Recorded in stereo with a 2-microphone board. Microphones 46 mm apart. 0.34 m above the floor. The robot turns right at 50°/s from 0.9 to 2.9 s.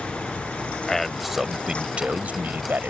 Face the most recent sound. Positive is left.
turn(degrees=-95)